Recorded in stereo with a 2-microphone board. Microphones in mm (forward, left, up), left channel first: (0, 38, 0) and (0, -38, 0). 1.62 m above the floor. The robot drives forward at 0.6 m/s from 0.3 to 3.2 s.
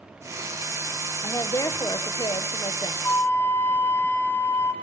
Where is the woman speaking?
45° left (ahead or behind), 1.6 m; by 2.9 s 85° left, 1.1 m.